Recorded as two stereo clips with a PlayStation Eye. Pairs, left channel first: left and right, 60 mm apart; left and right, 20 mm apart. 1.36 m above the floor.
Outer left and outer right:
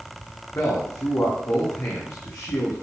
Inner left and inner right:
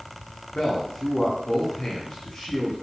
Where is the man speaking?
40° left (ahead or behind), 1.2 m.